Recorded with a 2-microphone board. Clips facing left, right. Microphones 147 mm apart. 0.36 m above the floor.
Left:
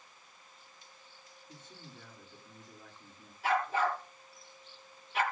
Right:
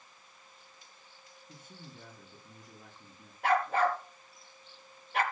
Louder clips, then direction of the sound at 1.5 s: Right 1 dB; 10° right (ahead or behind).